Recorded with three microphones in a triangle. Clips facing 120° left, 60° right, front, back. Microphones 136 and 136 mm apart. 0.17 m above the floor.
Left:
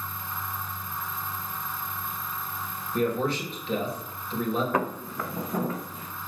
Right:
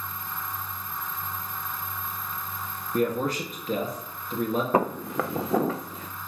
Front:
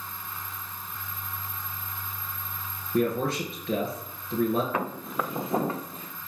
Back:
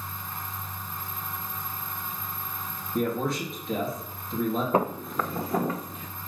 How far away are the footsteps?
About 0.6 m.